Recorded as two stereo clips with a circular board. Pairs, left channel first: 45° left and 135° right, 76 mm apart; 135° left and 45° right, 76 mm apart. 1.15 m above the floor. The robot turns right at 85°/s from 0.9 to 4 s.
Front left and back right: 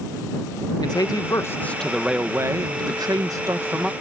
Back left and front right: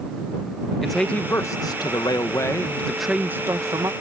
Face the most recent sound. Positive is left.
turn(degrees=-50)